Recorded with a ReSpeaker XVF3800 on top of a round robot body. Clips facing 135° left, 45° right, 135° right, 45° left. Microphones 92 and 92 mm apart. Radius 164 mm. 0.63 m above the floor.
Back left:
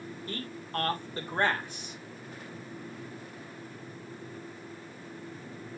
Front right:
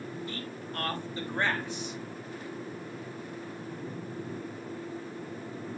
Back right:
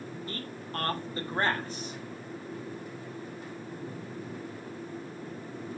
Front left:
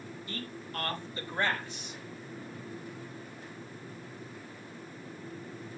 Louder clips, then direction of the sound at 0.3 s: Back left 1 dB, even; 175° left.